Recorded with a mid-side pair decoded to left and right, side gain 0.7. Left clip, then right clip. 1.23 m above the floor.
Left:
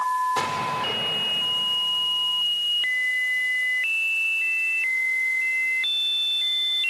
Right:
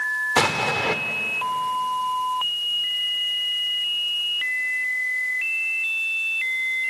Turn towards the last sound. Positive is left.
turn(degrees=-45)